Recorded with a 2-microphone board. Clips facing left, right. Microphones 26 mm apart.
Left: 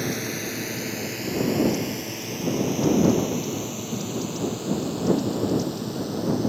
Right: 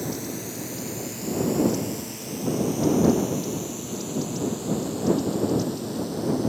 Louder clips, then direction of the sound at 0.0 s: Left 3 dB; 45° left (ahead or behind).